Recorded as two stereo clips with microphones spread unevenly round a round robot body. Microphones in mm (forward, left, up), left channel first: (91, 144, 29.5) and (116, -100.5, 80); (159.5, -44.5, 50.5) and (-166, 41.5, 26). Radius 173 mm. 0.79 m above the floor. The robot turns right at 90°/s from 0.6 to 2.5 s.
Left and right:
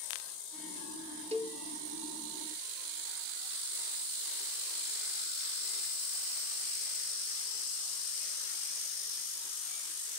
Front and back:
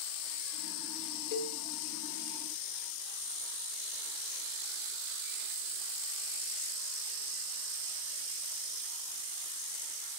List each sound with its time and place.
1.3 s a cowbell: 15° right, 0.6 m; by 1.6 s 10° left, 0.6 m